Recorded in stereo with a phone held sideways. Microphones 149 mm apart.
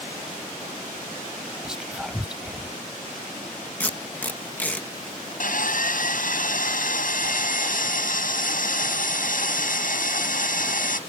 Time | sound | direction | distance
1.6 | whispering | 5° right (ahead or behind) | ?
3.8 | tape being pulled | 10° left (ahead or behind) | ?
5.4 | sawing | 65° left (ahead or behind) | ?